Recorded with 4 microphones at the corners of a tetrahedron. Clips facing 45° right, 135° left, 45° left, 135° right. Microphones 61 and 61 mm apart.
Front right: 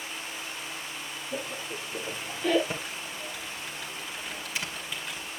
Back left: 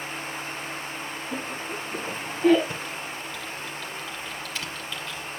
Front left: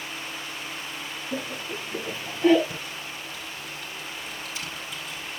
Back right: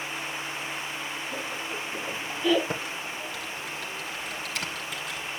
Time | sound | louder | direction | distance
1.3 | laughter | back left 2 dB, front left 1 dB | 90° left | 7.5 m
2.7 | typing on a keyboard | back left 2 dB, back right 3 dB | 115° right | 2.5 m